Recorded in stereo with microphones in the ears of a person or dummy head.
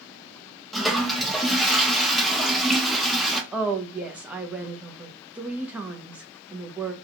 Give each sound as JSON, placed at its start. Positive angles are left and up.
{"t": 0.7, "sound": "a toilet flushing", "side_deg": 5, "distance_m": 0.7}
{"t": 3.5, "sound": "a woman speaking", "side_deg": -10, "distance_m": 0.6}